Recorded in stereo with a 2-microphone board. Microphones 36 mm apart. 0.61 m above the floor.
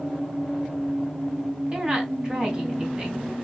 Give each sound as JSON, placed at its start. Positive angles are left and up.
{"t": 1.7, "sound": "a woman speaking", "side_deg": -25, "distance_m": 4.0}